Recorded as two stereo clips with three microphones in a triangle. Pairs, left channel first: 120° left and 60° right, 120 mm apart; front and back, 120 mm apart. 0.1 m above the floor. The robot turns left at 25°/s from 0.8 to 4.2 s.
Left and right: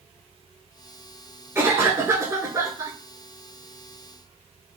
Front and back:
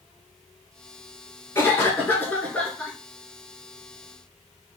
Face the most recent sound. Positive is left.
turn(degrees=-100)